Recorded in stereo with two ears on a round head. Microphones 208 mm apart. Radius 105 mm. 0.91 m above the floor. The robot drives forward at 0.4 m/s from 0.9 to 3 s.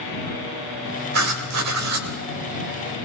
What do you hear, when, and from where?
1.1 s writing: 75° right (ahead or behind), 1.5 m